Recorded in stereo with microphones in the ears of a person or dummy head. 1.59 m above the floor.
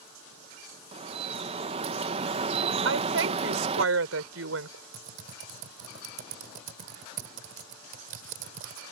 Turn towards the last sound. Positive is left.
turn(degrees=-50)  # may be behind; listen again after turning